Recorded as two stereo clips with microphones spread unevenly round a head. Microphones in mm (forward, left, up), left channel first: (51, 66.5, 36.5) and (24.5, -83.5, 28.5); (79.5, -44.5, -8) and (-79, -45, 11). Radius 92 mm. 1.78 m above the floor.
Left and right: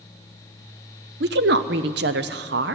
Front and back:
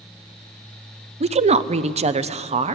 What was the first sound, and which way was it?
A woman speaking, 130° right.